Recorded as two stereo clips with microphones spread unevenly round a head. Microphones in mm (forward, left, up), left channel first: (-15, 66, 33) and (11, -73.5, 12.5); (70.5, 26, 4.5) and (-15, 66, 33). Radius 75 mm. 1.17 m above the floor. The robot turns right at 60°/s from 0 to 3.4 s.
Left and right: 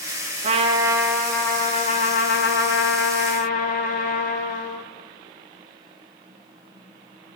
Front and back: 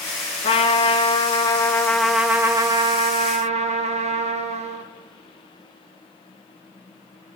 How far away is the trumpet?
About 0.9 m.